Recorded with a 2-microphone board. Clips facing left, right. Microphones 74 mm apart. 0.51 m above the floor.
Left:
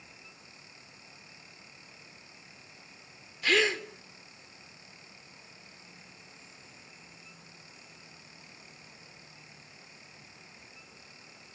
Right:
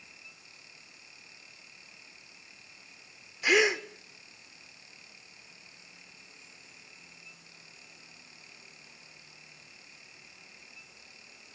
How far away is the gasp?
About 0.9 m.